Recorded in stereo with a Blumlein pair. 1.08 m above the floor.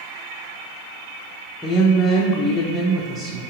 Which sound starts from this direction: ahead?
A woman speaking, at 1.6 s.